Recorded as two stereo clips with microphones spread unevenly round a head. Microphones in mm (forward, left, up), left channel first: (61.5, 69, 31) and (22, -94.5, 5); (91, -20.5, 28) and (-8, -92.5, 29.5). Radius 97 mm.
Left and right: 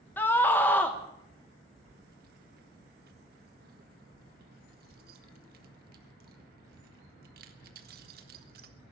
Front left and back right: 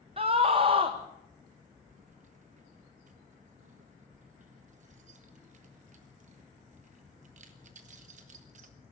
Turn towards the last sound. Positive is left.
turn(degrees=-150)